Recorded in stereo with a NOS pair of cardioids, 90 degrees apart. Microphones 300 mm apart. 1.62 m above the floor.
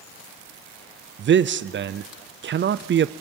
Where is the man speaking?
40° right, 0.6 m.